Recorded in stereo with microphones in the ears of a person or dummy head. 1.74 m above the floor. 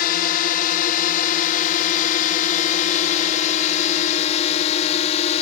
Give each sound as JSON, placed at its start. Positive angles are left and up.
{"t": 0.0, "sound": "a drone", "side_deg": 55}